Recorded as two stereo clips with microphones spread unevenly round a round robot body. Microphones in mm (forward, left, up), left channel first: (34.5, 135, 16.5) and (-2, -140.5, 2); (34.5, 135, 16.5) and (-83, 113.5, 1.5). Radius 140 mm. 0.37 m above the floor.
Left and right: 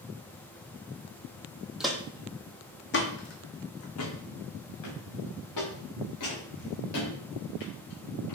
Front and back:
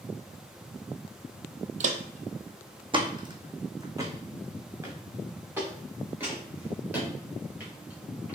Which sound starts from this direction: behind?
Footsteps, at 1.8 s.